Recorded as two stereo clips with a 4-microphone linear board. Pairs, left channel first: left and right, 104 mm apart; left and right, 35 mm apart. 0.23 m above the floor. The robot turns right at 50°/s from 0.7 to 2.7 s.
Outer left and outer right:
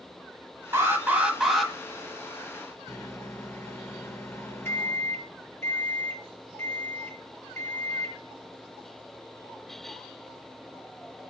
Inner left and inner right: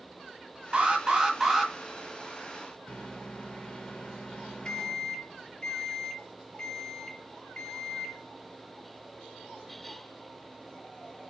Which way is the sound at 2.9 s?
25° left (ahead or behind).